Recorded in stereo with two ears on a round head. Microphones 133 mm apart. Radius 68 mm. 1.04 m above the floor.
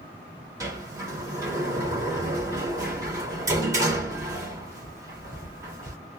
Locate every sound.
0.6 s a sliding door: 20° right (ahead or behind), 1.8 m